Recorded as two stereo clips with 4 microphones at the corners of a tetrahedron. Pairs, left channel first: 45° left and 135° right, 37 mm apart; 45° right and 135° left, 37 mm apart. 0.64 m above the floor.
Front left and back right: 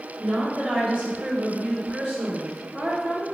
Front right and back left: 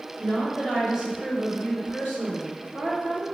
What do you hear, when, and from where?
0.2 s a woman speaking: 155° right, 1.8 m; by 3.2 s 150° left, 2.5 m